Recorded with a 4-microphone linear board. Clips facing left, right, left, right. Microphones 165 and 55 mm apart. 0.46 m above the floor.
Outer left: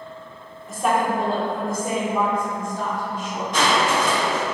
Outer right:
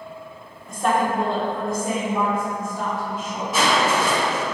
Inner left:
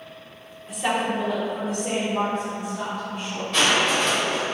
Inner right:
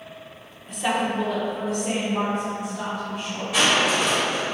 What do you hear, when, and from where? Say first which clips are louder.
0.7 s a woman speaking: even, even; 5° left (ahead or behind), 0.8 m; by 3.4 s centre (ahead or behind), 3 m
3.5 s crushing: even, even; 5° right (ahead or behind), 1.2 m